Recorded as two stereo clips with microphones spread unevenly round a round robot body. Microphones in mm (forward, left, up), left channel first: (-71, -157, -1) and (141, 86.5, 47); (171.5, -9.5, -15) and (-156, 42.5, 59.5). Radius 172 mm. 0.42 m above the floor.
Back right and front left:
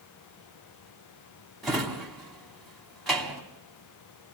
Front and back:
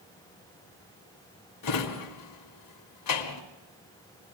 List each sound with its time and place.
1.6 s a drawer: 45° right, 2 m